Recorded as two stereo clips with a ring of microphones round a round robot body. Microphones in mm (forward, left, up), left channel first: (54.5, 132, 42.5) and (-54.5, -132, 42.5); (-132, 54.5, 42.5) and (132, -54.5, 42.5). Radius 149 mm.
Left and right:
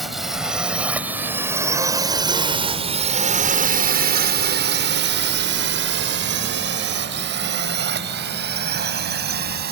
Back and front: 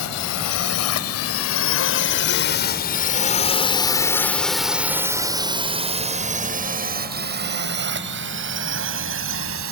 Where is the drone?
160° left; by 9.7 s 60° right.